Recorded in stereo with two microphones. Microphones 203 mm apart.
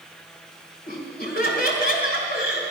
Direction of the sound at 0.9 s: 45° left (ahead or behind).